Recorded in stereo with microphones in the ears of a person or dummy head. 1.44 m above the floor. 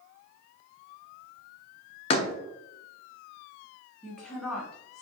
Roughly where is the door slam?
Left.